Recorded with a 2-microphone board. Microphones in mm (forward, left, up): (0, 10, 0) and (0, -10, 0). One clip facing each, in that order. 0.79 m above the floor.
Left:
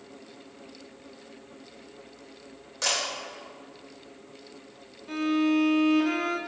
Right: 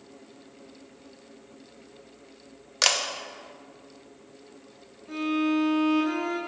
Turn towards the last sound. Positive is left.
turn(degrees=35)  # may be behind; listen again after turning